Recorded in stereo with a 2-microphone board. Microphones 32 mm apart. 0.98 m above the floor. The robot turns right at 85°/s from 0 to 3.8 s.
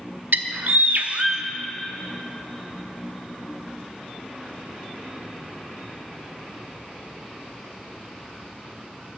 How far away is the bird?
About 0.7 m.